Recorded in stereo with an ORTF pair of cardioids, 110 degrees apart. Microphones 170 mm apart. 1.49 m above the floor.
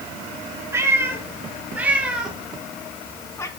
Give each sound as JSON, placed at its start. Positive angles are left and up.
{"t": 0.7, "sound": "a cat meowing", "azimuth_deg": -15, "distance_m": 4.5}